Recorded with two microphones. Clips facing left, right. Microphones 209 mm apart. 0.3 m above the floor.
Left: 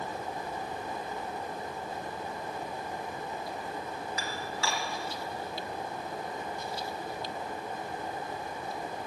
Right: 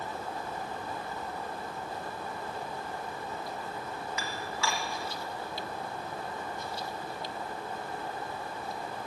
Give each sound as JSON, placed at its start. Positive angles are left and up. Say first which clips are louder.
{"t": 4.2, "sound": "dishes clattering", "louder": "right 1 dB", "side_deg": 35, "distance_m": 1.4}